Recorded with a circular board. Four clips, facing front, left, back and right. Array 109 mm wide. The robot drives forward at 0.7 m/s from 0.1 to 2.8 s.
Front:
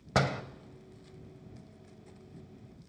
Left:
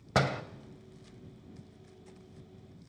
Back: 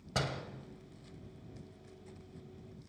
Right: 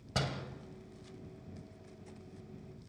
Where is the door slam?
45° left, 1.4 m; by 0.4 s 55° left, 1.3 m.